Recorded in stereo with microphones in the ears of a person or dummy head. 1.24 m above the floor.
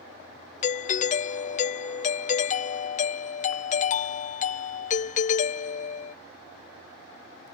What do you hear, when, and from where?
0.6 s a doorbell: 35° left (ahead or behind)